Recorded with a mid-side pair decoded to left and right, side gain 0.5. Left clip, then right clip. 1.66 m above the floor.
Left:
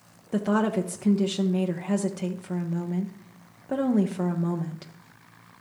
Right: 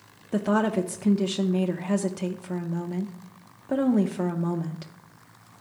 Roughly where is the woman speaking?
Ahead.